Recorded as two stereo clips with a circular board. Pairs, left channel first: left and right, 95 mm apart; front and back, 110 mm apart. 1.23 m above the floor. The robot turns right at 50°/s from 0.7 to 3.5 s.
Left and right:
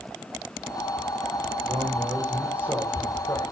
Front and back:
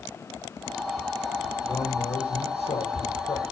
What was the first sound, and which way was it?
A man speaking, 60° right.